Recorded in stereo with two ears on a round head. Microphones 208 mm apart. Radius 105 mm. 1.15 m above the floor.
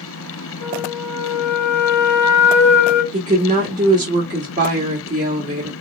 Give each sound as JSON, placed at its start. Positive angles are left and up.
{"t": 0.6, "sound": "a flute", "side_deg": 10, "distance_m": 1.5}
{"t": 3.1, "sound": "a woman speaking", "side_deg": -35, "distance_m": 1.3}